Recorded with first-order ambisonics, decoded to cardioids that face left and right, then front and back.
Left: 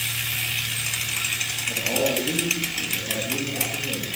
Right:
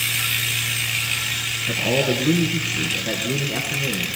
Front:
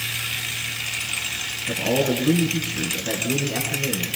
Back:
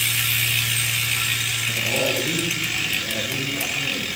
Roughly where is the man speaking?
Ahead right.